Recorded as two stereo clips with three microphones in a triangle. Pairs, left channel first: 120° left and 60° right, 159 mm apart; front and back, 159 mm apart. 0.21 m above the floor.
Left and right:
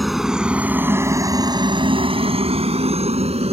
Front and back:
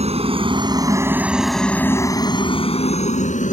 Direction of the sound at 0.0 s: 150° right.